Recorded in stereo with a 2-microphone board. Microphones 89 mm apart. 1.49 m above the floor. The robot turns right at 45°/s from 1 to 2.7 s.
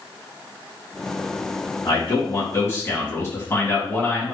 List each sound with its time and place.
1.9 s a man speaking: 115° left, 1.9 m; by 4.3 s 150° left, 1.9 m